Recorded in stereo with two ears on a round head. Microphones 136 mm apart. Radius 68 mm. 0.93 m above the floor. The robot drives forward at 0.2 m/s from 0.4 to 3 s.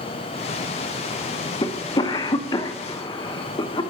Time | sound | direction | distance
1.6 | a cough | 30° left (ahead or behind) | 0.8 m